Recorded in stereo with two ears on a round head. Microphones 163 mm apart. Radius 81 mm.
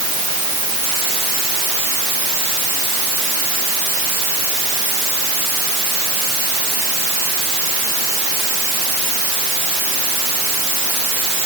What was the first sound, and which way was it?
Only background noise.